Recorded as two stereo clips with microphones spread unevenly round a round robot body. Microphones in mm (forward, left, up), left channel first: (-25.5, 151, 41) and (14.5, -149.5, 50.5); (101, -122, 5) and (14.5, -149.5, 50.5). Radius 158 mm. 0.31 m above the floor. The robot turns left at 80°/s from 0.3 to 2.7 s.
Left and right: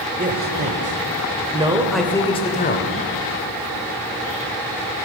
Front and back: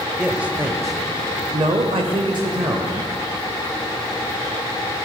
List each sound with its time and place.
0.2 s a man speaking: 40° right, 1.2 m; by 3.0 s 125° left, 1.2 m